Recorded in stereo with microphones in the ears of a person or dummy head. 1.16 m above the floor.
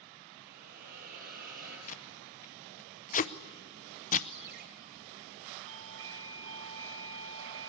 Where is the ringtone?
55° right (ahead or behind), 3 m.